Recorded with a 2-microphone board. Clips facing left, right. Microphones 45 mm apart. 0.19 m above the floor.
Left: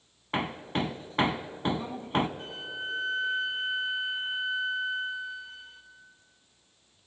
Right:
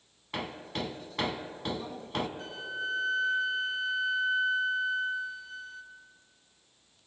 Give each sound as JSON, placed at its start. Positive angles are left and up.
{"t": 0.3, "sound": "hammering", "side_deg": 30, "distance_m": 0.7}
{"t": 2.4, "sound": "a flute", "side_deg": 25, "distance_m": 1.3}